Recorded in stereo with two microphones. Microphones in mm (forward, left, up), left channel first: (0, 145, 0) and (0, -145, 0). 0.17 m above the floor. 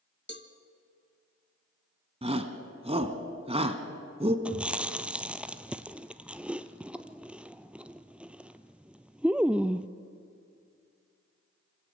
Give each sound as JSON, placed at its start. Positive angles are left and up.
{"t": 0.3, "sound": "a cowbell", "side_deg": 35, "distance_m": 1.0}
{"t": 2.2, "sound": "a shout", "side_deg": -20, "distance_m": 1.3}
{"t": 4.5, "sound": "chewing", "side_deg": -5, "distance_m": 0.6}